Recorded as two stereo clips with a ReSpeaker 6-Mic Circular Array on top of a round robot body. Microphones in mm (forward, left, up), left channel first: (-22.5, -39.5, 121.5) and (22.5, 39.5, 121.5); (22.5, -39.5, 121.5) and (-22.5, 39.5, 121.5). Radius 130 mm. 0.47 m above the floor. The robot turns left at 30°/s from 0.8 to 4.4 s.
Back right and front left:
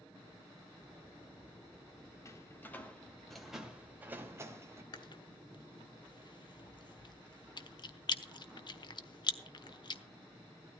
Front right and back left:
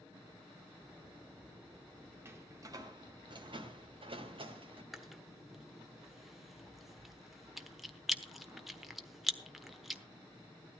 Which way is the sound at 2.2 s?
175° right.